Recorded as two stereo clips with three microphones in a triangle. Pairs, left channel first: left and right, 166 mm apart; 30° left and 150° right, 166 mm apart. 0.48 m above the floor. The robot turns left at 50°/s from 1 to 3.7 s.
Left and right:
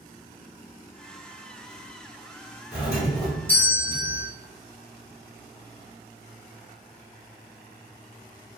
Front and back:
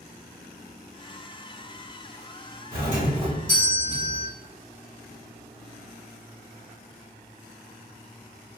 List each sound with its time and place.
2.7 s a doorbell: 165° right, 1.5 m; by 4.3 s 145° left, 1.5 m